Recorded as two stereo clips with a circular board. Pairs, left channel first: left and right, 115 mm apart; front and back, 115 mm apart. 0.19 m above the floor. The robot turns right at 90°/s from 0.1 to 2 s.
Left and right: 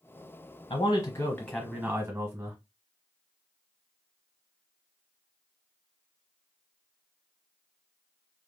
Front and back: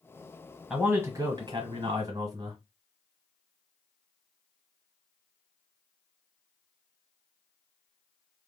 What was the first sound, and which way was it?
A man speaking, 100° left.